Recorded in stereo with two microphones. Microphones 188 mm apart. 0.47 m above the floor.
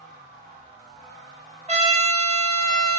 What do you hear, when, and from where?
1.7 s a trumpet: 35° right (ahead or behind), 1.3 m